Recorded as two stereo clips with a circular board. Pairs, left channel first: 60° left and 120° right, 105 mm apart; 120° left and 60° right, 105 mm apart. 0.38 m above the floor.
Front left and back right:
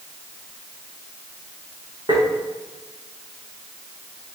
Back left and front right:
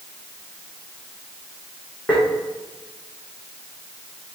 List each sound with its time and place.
2.1 s tapping: 165° right, 4 m